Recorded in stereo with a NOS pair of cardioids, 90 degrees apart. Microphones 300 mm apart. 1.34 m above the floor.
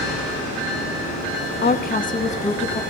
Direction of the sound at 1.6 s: 35° left.